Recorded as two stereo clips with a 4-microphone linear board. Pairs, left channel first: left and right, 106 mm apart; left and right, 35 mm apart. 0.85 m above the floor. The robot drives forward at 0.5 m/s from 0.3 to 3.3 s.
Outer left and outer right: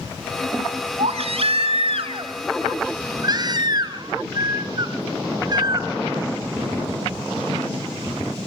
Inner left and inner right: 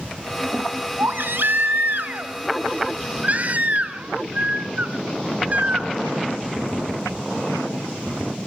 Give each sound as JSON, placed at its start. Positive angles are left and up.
{"t": 1.0, "sound": "a baby crying", "side_deg": -70, "distance_m": 1.1}